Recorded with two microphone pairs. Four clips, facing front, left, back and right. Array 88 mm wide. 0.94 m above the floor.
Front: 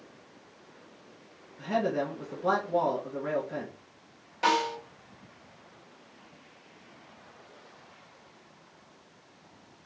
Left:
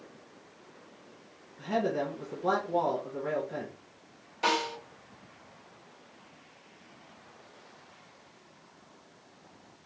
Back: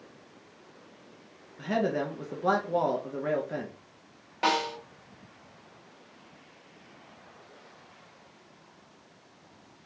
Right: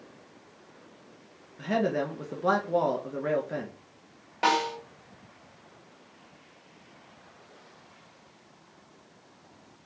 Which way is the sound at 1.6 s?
125° right.